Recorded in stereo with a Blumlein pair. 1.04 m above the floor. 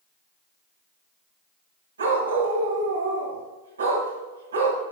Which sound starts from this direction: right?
A dog barking, at 2.0 s.